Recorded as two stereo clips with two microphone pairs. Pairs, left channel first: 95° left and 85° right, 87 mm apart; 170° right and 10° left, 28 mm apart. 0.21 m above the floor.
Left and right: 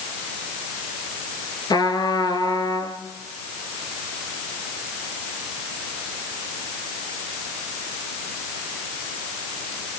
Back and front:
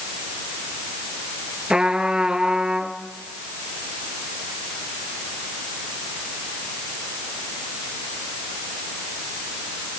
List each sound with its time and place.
1.7 s a trumpet: 65° left, 3.5 m